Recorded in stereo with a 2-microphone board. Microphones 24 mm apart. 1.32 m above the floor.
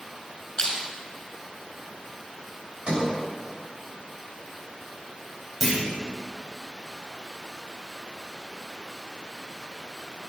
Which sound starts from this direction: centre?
A clunk, at 5.6 s.